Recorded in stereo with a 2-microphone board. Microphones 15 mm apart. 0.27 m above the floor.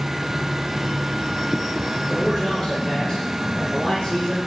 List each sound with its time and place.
2.1 s a man speaking: 35° left (ahead or behind), 5 m; by 4.5 s 50° left (ahead or behind), 7 m